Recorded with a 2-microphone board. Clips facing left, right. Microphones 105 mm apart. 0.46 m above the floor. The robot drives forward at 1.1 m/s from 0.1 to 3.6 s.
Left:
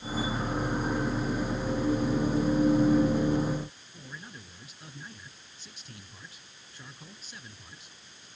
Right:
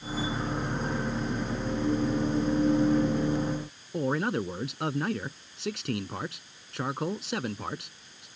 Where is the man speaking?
75° right (ahead or behind).